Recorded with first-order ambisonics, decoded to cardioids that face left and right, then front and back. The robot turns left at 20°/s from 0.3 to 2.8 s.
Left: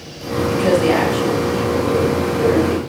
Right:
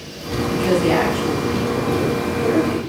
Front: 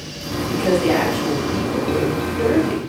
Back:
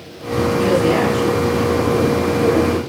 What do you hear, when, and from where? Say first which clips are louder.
0.5 s a woman speaking: left 3 dB, back 2 dB; 80° left, 3 m; by 2.8 s 35° left, 3 m